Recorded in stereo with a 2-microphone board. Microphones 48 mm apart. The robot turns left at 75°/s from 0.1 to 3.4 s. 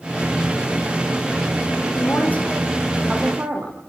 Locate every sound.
1.9 s a woman speaking: 65° left, 7 m; by 3.8 s 45° right, 7 m